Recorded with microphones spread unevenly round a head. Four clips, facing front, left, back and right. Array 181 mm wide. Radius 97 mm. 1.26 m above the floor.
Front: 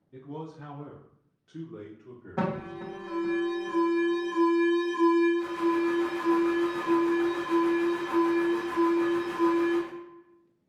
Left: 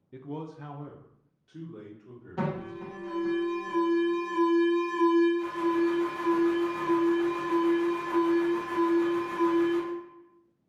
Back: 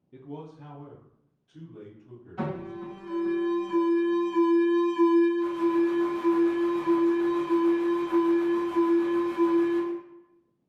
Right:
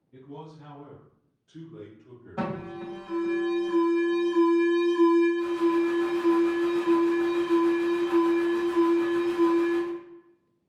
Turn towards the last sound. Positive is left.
turn(degrees=-10)